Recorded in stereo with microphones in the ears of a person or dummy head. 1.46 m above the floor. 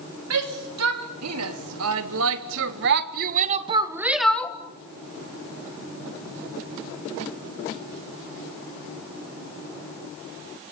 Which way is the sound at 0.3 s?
85° right.